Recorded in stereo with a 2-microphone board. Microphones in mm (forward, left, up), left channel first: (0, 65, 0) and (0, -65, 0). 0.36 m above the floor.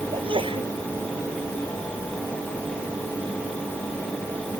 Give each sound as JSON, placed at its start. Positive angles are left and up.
{"t": 0.1, "sound": "a sneeze", "side_deg": -40}